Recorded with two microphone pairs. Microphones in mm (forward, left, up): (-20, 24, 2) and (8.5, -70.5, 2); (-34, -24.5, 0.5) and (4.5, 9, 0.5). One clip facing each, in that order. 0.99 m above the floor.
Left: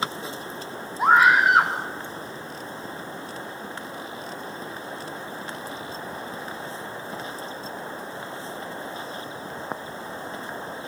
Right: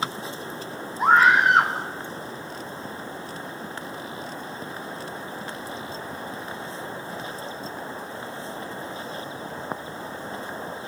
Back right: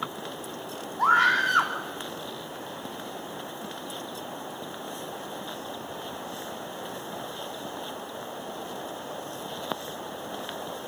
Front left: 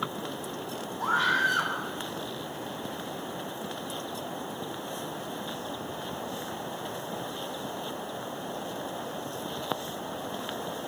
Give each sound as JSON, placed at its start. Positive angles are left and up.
{"t": 1.0, "sound": "a scream", "azimuth_deg": -165, "distance_m": 2.5}